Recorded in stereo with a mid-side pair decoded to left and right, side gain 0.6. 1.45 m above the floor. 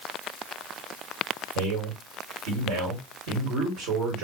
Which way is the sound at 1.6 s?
70° right.